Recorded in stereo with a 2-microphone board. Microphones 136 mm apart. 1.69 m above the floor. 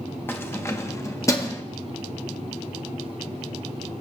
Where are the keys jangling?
15° left (ahead or behind), 0.9 m; by 1.6 s 20° left (ahead or behind), 1.3 m.